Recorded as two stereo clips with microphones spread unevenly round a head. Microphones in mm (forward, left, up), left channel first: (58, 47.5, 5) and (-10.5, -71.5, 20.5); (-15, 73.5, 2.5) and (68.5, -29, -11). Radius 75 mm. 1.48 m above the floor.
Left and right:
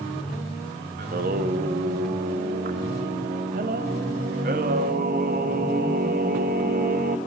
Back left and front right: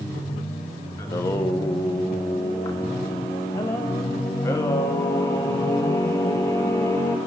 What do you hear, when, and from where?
1.0 s singing: 160° right, 0.9 m